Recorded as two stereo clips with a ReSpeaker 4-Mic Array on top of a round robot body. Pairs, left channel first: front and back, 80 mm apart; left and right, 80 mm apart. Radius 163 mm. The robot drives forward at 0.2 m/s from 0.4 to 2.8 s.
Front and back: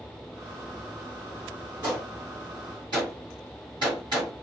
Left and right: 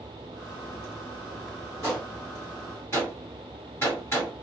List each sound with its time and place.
1.8 s a gunshot: 145° left, 1.1 m; by 4.3 s 150° left, 1.3 m